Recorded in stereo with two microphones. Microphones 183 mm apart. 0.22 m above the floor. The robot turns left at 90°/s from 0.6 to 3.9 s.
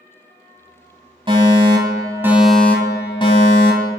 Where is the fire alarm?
70° right, 2 m; by 3.9 s 55° left, 2 m.